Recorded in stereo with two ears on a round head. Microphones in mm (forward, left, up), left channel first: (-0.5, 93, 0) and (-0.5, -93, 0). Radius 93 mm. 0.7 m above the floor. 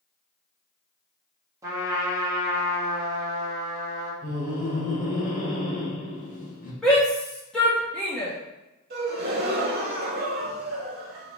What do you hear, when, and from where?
1.6 s a trumpet: 15° right (ahead or behind), 1.2 m
4.2 s laughter: 40° left (ahead or behind), 1.3 m
6.8 s a shout: 5° left (ahead or behind), 0.7 m
8.9 s a gasp: 55° right (ahead or behind), 1.0 m